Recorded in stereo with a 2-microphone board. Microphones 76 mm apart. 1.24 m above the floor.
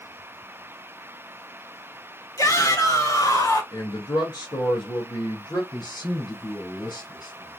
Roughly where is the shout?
Left.